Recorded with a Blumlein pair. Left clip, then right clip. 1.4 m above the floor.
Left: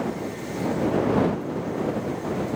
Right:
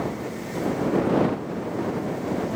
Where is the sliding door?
No sliding door in this recording.